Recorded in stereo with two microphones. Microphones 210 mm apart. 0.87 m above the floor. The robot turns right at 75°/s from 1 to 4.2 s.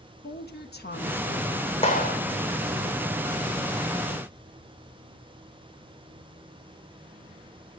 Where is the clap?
30° left (ahead or behind), 2.5 m; by 2.2 s 55° left (ahead or behind), 2.5 m.